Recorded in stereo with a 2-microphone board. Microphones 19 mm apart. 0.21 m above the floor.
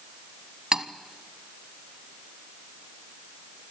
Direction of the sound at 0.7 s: 40° right (ahead or behind).